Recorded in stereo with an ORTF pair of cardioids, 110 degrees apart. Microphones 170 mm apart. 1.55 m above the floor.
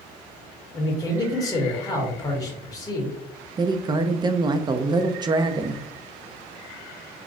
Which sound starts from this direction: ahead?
A man speaking, at 0.7 s.